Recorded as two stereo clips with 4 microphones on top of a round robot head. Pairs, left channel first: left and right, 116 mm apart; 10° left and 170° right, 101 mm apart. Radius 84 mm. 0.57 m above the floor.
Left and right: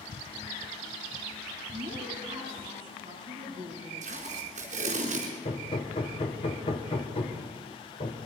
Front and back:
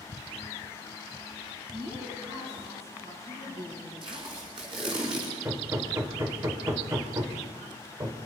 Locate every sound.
1.7 s a woman speaking: 145° right, 8 m
4.0 s tape being pulled: 120° right, 4 m
5.5 s hammering: 130° left, 2 m